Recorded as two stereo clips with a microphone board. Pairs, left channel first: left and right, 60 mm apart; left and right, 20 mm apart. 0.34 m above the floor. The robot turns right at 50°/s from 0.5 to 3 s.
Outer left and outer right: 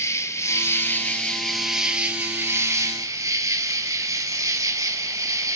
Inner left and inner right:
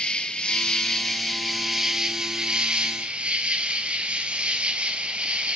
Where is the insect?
125° left, 1.1 m; by 5.6 s 110° right, 1.1 m.